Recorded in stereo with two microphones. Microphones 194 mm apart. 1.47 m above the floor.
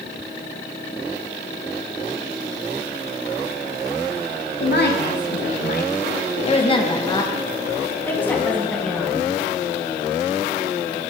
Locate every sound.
4.6 s a woman speaking: 55° left (ahead or behind), 0.9 m; by 9.2 s 5° left (ahead or behind), 2.5 m